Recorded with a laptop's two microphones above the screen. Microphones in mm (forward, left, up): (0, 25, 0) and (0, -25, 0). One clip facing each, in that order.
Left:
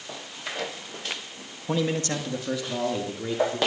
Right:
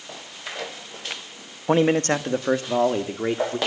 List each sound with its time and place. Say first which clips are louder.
1.7 s a man speaking: right 7 dB; 40° right (ahead or behind), 0.9 m; by 3.6 s 45° right (ahead or behind), 2 m